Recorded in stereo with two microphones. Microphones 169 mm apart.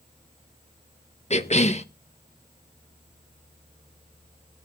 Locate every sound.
1.3 s a cough: 40° left (ahead or behind), 0.9 m